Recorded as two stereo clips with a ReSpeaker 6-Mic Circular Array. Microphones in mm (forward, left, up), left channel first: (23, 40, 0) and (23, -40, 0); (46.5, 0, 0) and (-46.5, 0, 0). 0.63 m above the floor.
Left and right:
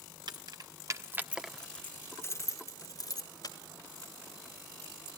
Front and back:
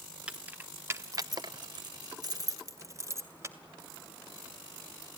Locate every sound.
0.3 s keys jangling: 105° right, 1.4 m; by 3.6 s 120° left, 2.5 m